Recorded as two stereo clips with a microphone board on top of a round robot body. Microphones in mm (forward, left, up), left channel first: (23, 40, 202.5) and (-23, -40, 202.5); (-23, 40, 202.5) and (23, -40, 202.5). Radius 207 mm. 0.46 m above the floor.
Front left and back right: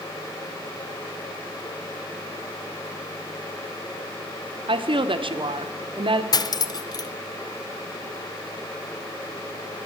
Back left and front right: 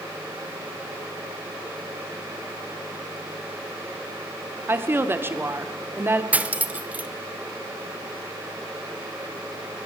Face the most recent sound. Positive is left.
turn(degrees=15)